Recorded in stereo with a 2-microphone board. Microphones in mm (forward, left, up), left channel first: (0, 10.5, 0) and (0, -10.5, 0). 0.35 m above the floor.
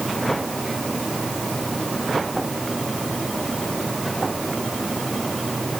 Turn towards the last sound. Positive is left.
No sound to turn to.